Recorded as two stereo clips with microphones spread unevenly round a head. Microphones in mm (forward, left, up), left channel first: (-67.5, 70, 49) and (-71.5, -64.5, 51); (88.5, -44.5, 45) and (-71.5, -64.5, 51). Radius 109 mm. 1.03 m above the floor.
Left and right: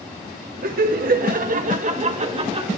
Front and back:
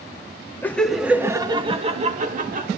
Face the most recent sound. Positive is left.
turn(degrees=-140)